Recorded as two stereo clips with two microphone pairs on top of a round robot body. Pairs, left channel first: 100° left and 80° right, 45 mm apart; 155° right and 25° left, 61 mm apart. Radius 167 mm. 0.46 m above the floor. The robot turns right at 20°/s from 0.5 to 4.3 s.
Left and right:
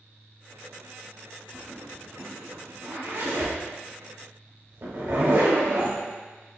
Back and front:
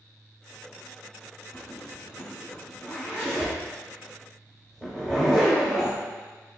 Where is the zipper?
125° right, 1.4 m; by 6.0 s 70° right, 1.4 m.